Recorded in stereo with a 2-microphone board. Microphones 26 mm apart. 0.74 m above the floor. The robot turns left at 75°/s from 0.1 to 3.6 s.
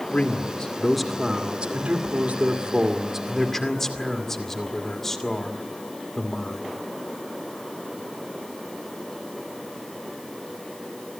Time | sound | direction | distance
0.1 | a man speaking | 65° left | 2 m